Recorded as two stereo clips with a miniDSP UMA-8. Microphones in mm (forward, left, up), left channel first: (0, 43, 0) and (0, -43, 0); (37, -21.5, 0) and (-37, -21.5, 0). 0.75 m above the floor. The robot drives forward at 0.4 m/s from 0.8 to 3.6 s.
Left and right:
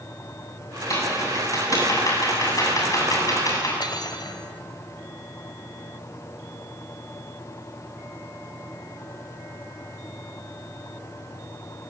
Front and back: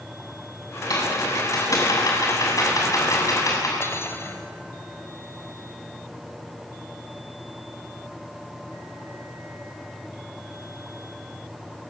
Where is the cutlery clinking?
55° left, 2 m.